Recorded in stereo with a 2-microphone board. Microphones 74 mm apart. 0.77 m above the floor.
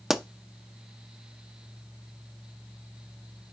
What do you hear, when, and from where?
0.1 s a pop: 5° right (ahead or behind), 0.5 m